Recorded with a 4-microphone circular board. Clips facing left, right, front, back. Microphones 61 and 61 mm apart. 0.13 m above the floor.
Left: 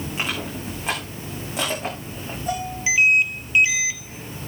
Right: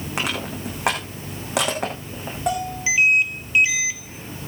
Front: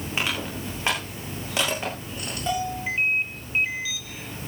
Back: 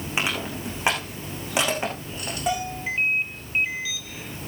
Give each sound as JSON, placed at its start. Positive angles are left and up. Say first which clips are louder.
{"t": 0.2, "sound": "crushing", "louder": "right 3 dB, back 2 dB", "azimuth_deg": -105, "distance_m": 8.0}
{"t": 2.5, "sound": "a bell", "louder": "right 2 dB, even", "azimuth_deg": -105, "distance_m": 8.5}